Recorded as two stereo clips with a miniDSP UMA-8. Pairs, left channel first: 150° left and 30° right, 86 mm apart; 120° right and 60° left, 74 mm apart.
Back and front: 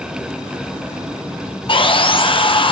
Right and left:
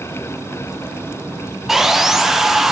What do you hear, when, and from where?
1.7 s sawing: 145° left, 0.6 m